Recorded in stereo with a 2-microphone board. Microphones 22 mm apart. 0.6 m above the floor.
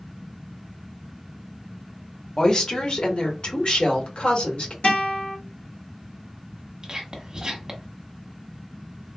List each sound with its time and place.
2.4 s a woman speaking: 30° left (ahead or behind), 1.1 m; by 4.7 s 65° left (ahead or behind), 2 m
4.8 s a guitar: 65° left (ahead or behind), 2 m
6.8 s whispering: 40° right (ahead or behind), 0.9 m